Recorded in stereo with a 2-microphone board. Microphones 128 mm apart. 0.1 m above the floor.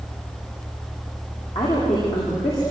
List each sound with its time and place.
1.6 s a woman speaking: 50° left (ahead or behind), 8 m